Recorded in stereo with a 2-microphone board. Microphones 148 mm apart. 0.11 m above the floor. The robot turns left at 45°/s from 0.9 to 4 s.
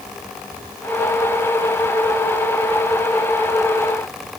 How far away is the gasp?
I don't hear a gasp.